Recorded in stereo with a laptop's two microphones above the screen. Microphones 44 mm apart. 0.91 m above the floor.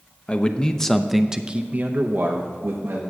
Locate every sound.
0.3 s a man speaking: 30° left (ahead or behind), 0.8 m; by 3.0 s 60° right (ahead or behind), 1.1 m